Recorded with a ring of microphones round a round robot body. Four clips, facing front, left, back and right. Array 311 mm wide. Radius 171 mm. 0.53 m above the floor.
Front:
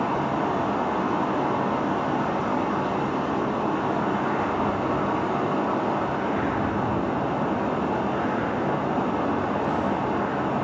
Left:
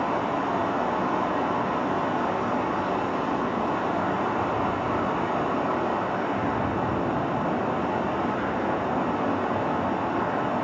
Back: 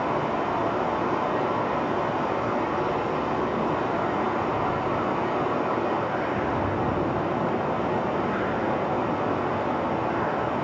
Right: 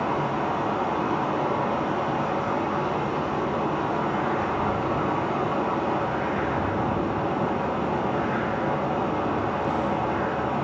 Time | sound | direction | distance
0.0 | running water | 15° left | 5.5 m